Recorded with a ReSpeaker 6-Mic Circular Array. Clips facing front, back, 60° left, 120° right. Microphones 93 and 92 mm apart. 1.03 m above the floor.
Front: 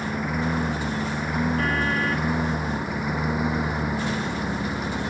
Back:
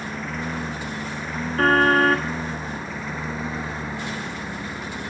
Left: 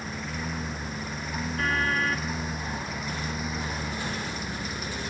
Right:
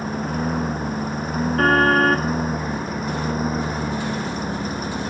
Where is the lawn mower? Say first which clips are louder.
Front 4 dB, right 10 dB; 75° right; by 5.1 s 70° right.